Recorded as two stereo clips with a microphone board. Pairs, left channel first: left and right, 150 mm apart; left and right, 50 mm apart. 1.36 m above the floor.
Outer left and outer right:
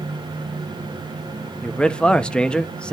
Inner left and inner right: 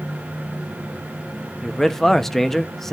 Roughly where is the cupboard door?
No cupboard door in this recording.